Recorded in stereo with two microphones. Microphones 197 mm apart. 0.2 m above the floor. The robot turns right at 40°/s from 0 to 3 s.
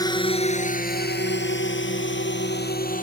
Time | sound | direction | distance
0.0 | a drone | 20° left (ahead or behind) | ?